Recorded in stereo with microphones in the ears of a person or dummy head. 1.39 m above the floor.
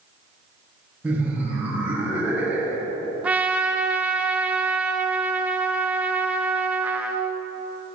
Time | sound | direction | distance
1.0 | laughter | 10° right (ahead or behind) | 1.3 m
3.2 | a trumpet | 10° right (ahead or behind) | 0.6 m